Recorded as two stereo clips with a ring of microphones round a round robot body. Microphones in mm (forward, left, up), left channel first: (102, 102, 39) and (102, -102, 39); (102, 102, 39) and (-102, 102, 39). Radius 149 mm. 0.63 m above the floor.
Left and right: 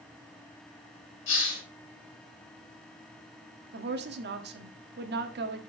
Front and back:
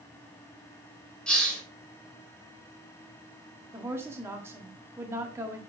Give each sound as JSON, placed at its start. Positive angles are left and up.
{"t": 1.3, "sound": "a hiss", "azimuth_deg": 85, "distance_m": 3.5}
{"t": 3.7, "sound": "a woman speaking", "azimuth_deg": -105, "distance_m": 1.1}